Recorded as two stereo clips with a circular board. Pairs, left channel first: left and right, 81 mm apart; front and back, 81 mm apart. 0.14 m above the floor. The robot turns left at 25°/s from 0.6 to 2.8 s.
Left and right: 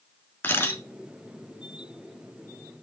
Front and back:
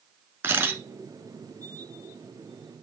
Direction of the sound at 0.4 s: 135° left.